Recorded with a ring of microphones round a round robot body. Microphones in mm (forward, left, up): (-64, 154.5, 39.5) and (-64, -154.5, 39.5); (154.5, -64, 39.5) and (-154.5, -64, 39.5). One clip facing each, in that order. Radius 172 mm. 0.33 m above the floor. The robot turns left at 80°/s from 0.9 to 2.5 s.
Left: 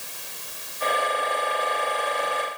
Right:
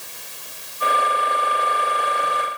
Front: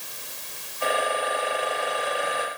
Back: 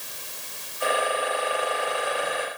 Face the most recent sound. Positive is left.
No sound to turn to.